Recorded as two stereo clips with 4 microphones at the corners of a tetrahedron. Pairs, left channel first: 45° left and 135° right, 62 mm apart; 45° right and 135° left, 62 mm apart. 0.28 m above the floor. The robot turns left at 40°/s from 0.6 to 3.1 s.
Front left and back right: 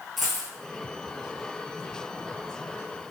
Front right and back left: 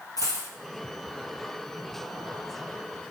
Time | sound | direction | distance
0.2 | a dropped coin | 45° right | 1.0 m